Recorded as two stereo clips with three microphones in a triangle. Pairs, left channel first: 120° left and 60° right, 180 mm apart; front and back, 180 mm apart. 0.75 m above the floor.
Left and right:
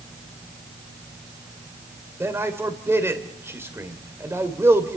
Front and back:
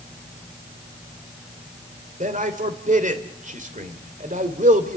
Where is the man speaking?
135° right, 2 m.